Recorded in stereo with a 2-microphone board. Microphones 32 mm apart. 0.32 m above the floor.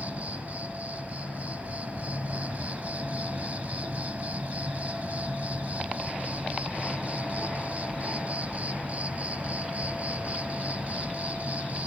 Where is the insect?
55° right (ahead or behind), 0.8 m.